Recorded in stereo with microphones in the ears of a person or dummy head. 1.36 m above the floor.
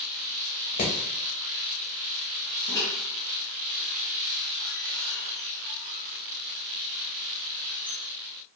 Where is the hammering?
35° left (ahead or behind), 0.9 m.